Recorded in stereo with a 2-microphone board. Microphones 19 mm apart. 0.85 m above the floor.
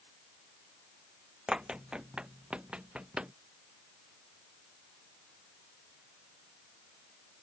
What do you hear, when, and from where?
1.5 s running footsteps: 50° right (ahead or behind); by 3.3 s 70° right (ahead or behind)